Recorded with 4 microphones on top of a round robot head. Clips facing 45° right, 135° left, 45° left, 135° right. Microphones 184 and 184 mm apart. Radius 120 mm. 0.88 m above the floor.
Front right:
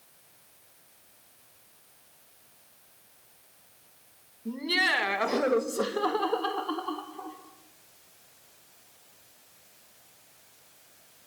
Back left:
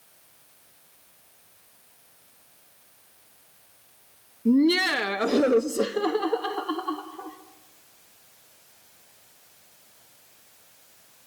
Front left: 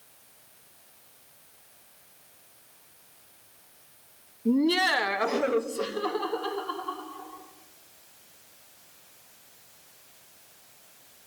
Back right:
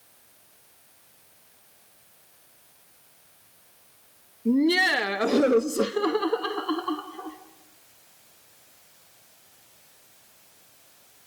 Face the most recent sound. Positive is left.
turn(degrees=-140)